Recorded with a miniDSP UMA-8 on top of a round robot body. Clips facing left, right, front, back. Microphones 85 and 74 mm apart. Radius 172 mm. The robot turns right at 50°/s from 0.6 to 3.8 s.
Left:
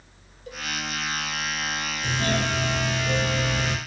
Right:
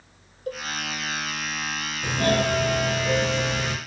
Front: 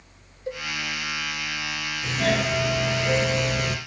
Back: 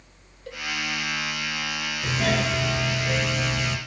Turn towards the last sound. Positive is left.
turn(degrees=-15)